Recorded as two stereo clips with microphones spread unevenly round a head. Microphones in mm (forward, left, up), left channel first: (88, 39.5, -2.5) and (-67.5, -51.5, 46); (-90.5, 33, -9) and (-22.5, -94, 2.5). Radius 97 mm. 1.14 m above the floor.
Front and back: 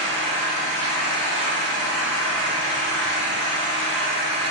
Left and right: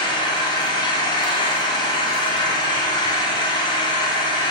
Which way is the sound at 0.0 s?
175° left.